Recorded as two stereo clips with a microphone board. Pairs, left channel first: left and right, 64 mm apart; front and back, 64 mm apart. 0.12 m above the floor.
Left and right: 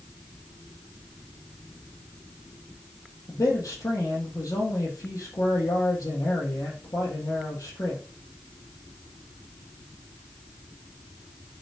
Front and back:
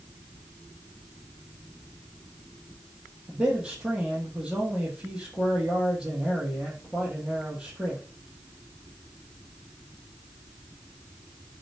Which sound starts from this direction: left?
A man speaking, at 3.3 s.